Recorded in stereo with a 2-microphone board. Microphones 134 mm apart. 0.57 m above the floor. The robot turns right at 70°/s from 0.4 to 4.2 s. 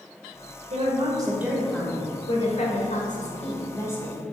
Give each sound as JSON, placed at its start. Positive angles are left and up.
{"t": 0.7, "sound": "a woman speaking", "azimuth_deg": -65, "distance_m": 1.9}